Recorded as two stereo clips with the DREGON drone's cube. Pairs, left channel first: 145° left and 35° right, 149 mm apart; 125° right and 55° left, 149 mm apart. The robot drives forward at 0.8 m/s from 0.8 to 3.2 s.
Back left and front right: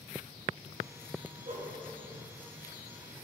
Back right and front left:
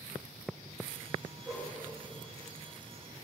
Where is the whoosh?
10° right, 1.5 m.